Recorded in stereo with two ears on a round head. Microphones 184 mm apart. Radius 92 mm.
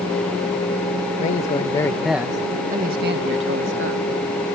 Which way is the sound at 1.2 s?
40° left (ahead or behind).